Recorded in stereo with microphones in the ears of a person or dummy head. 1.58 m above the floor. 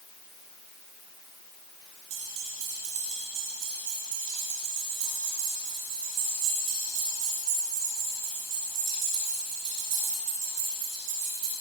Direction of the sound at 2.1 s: 85° right.